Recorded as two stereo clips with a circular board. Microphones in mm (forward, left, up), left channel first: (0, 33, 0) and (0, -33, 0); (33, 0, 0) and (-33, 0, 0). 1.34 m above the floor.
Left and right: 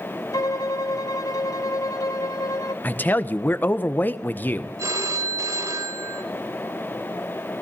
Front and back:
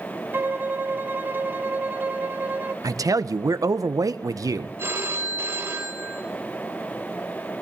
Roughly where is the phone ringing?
Behind right.